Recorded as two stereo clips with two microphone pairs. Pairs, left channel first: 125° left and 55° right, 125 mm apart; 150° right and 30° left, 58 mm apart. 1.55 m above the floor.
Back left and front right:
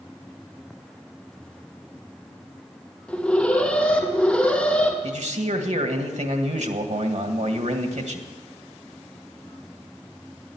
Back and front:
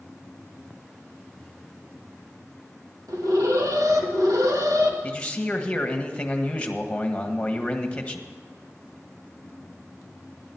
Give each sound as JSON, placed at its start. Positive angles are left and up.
{"t": 3.1, "sound": "an alarm", "azimuth_deg": 40, "distance_m": 2.0}
{"t": 5.0, "sound": "a man speaking", "azimuth_deg": -75, "distance_m": 1.7}